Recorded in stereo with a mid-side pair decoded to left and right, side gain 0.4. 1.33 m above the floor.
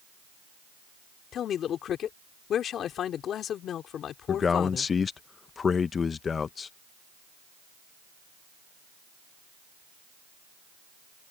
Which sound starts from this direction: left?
A man speaking, at 1.3 s.